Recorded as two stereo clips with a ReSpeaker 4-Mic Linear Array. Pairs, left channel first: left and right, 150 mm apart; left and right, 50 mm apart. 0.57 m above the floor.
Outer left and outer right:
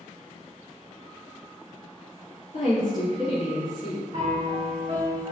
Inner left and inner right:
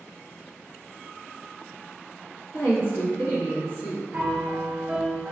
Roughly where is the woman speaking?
Left.